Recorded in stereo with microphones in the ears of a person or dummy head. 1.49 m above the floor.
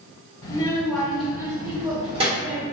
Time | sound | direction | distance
0.4 | a child speaking | 20° left (ahead or behind) | 1.0 m